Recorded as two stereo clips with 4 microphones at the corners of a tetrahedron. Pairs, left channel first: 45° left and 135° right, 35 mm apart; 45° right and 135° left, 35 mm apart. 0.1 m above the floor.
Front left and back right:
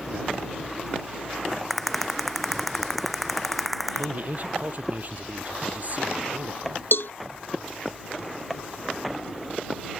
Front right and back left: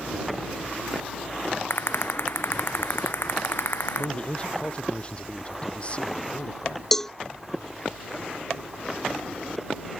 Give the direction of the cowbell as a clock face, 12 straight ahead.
11 o'clock.